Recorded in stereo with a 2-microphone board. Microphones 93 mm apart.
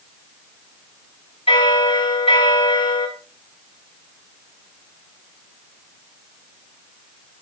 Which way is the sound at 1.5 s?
75° left (ahead or behind).